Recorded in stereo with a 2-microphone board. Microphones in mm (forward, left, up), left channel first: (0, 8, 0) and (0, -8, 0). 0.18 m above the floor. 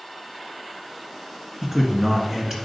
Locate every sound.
1.6 s a man speaking: 25° right (ahead or behind), 1.9 m